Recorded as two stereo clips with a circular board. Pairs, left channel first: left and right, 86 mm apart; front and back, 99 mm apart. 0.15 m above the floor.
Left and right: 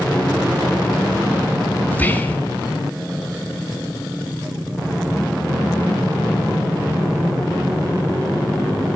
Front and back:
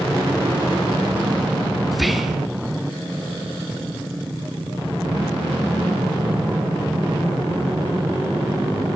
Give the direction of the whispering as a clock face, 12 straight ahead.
9 o'clock.